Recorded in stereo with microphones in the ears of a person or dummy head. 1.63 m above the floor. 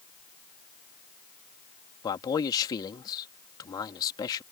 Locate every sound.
2.0 s a man speaking: 35° left (ahead or behind)